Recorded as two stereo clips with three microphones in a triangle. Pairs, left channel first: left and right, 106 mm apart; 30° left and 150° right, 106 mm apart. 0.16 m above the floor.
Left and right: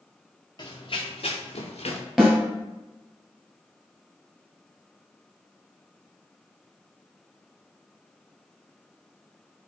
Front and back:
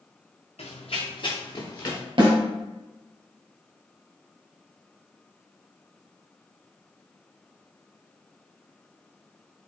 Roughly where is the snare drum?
Behind.